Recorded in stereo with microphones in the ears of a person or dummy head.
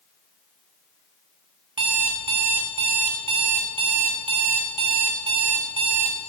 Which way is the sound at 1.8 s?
30° right (ahead or behind).